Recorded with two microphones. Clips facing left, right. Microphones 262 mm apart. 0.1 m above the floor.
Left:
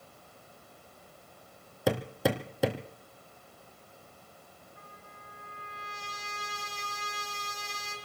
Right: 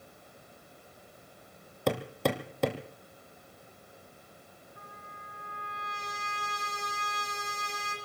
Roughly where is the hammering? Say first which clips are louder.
Left 1 dB; centre.